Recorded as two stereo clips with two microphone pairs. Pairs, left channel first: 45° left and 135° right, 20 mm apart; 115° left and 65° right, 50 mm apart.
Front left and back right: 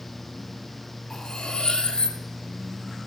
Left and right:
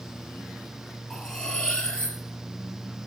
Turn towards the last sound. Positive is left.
turn(degrees=40)